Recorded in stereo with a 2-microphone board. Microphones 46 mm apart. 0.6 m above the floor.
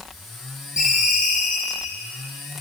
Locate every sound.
0.8 s a ringtone: 20° right (ahead or behind), 7.5 m